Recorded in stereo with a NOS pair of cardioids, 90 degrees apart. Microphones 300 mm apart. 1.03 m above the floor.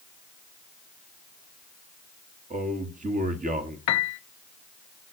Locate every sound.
2.5 s a man speaking: 25° right, 1.7 m
3.9 s a piano: 65° left, 0.7 m